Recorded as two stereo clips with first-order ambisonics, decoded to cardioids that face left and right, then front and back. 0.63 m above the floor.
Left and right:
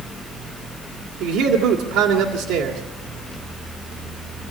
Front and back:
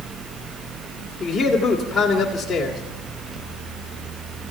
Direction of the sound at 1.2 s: 75° right.